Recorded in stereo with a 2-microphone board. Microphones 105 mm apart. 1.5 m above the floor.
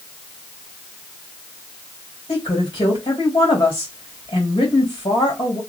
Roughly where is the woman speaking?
Left.